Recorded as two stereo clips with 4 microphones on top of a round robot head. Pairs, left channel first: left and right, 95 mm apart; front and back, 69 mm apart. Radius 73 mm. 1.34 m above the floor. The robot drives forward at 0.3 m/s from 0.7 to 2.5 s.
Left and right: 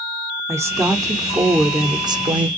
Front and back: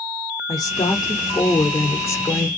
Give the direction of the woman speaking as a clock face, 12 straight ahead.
1 o'clock.